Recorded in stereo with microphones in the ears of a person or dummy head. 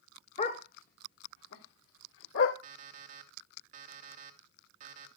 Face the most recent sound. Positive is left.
turn(degrees=-40)  # may be behind; listen again after turning